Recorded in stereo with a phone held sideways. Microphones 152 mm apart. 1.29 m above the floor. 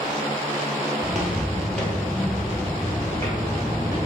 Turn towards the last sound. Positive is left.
turn(degrees=20)  # may be behind; listen again after turning